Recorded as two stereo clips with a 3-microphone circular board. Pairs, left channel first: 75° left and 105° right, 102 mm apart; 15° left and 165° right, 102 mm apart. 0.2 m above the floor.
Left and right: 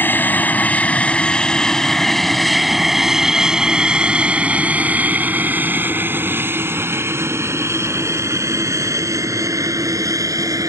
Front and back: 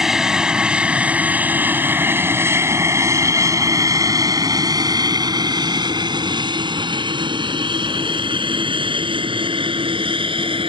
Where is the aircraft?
115° left; by 10.7 s 155° right.